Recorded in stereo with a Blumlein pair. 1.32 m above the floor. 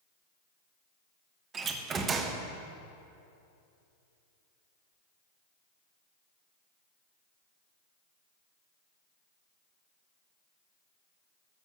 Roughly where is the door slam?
Ahead.